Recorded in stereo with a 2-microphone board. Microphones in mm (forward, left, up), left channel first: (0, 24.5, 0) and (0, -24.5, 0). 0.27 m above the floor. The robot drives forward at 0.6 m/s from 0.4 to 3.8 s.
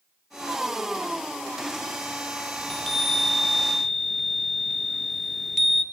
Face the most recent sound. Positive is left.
turn(degrees=5)  # may be behind; listen again after turning